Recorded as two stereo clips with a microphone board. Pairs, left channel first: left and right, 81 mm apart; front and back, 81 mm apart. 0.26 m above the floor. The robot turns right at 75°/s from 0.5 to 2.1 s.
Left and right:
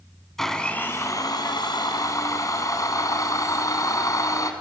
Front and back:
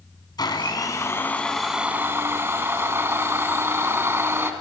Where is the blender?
5° left, 1.7 m; by 4.5 s 125° left, 1.7 m.